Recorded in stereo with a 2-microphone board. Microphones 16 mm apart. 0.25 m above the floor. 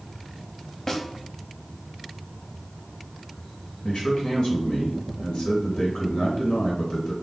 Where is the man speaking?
65° left (ahead or behind), 2.5 m.